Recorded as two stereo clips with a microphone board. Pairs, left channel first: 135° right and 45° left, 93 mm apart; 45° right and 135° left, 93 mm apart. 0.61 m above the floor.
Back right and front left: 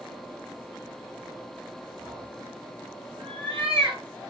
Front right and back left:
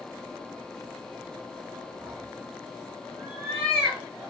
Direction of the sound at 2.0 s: 75° left.